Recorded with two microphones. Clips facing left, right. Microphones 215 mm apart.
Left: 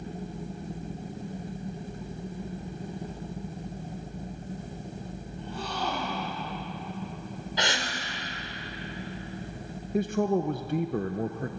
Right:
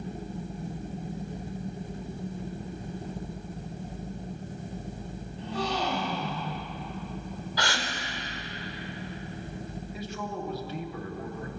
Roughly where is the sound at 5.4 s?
Right.